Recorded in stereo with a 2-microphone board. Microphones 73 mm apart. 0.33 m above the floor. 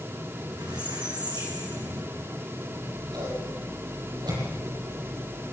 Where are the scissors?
80° right, 9.5 m.